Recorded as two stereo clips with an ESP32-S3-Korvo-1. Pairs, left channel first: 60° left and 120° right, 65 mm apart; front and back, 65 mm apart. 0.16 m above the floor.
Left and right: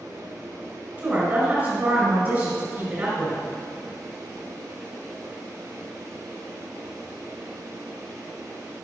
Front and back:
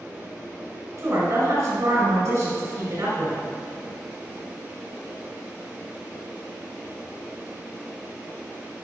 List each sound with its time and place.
1.0 s a woman speaking: 165° right, 2 m